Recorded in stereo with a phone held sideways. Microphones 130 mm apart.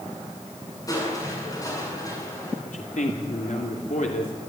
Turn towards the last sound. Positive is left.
turn(degrees=75)  # may be behind; listen again after turning